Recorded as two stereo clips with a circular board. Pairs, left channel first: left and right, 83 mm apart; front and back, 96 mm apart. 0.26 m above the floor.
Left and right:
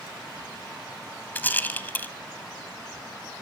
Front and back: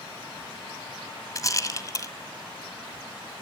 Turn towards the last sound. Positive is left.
turn(degrees=30)